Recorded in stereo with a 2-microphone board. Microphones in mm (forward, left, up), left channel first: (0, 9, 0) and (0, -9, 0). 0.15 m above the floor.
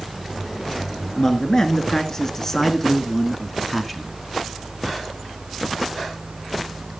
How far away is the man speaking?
About 2 m.